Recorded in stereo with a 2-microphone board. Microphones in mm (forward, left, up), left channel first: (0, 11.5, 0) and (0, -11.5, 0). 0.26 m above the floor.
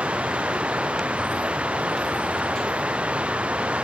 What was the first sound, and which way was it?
Running water, 70° right (ahead or behind).